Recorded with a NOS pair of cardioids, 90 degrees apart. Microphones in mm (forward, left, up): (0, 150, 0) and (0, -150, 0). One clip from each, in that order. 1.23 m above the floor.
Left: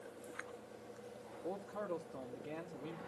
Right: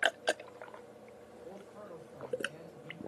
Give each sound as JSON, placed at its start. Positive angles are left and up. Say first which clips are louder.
{"t": 1.4, "sound": "a man speaking", "louder": "left 7 dB", "azimuth_deg": 70, "distance_m": 5.0}